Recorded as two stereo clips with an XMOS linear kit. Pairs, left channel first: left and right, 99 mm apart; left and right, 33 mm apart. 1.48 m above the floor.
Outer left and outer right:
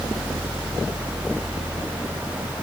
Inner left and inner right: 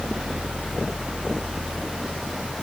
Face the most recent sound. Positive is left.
No sound to turn to.